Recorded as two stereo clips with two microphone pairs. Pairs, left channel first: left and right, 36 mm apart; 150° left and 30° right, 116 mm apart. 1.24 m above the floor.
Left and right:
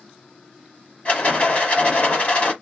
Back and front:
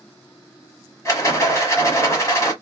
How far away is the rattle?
About 1.4 m.